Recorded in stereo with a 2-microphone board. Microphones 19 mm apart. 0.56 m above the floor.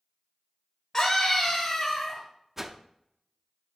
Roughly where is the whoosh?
Centre.